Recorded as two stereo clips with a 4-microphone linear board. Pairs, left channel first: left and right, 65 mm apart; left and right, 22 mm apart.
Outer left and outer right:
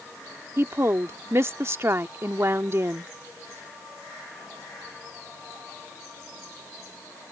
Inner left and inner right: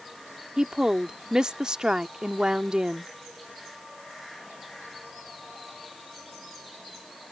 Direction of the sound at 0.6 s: 40° right (ahead or behind).